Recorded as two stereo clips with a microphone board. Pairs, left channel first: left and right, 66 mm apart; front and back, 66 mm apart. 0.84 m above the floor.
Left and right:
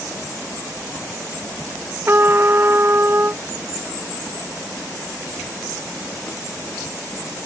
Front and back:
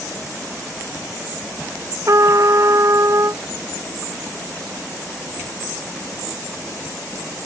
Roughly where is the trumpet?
Behind right.